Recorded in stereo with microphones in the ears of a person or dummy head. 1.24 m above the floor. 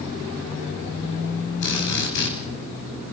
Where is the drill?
70° left (ahead or behind), 8.5 m.